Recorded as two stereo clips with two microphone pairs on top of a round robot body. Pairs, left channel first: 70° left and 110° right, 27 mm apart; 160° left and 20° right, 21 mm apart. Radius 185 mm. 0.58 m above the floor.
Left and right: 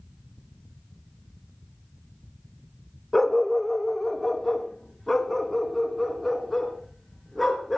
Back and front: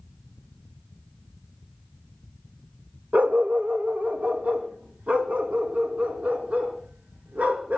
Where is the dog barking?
10° right, 0.7 m; by 7.8 s 5° right, 3.5 m.